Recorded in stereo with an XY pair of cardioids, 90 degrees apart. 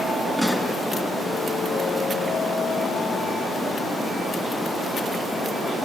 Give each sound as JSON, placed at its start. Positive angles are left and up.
{"t": 0.4, "sound": "a pop", "azimuth_deg": 5, "distance_m": 5.0}